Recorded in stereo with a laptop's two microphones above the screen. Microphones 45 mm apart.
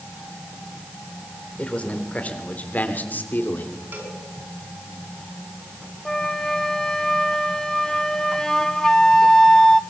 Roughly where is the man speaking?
Left.